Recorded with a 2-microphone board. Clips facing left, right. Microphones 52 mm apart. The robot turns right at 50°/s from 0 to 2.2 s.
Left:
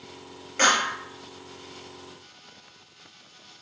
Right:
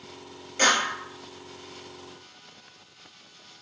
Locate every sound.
0.6 s a clap: 40° left (ahead or behind), 1.2 m; by 1.0 s 30° left (ahead or behind), 1.2 m